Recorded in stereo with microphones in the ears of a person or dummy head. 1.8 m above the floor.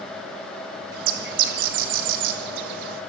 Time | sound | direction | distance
0.9 | a bird | 60° right (ahead or behind) | 1.7 m